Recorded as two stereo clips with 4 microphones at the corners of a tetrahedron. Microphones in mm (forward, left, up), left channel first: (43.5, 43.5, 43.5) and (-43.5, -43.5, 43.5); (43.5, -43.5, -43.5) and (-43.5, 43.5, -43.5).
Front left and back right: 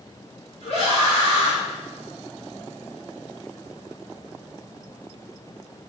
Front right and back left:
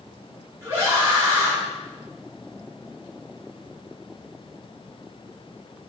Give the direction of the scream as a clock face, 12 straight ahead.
10 o'clock.